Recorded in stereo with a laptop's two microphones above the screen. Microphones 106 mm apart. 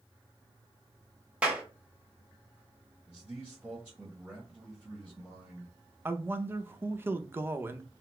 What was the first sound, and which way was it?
A clap, 10° right (ahead or behind).